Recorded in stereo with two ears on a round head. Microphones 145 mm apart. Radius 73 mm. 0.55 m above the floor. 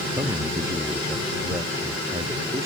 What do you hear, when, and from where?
0.1 s a man speaking: 15° right (ahead or behind); by 2.7 s 20° right (ahead or behind)